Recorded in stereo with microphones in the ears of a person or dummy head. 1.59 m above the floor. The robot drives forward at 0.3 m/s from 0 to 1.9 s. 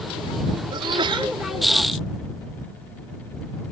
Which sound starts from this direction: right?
A sneeze, at 0.7 s.